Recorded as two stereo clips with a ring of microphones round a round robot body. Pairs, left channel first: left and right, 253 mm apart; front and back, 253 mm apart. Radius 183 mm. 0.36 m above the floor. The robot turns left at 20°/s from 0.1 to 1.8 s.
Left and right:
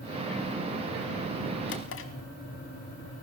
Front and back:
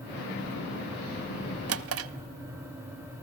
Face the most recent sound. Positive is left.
turn(degrees=145)